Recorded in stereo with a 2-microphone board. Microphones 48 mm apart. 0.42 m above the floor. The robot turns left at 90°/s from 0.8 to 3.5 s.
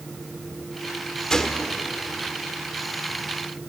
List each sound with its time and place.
1.3 s a gunshot: 15° left (ahead or behind), 1.3 m; by 1.8 s centre (ahead or behind), 1.3 m